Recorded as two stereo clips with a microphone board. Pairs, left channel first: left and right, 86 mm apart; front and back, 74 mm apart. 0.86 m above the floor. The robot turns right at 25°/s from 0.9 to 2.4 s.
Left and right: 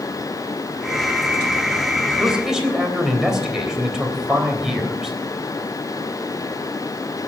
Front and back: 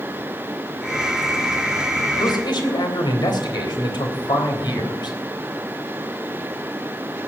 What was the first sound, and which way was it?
A man speaking, 10° right.